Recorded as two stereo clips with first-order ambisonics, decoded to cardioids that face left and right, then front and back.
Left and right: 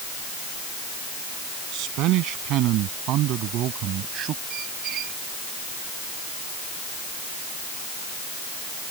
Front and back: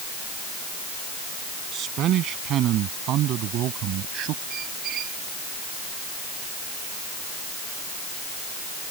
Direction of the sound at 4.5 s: 135° right.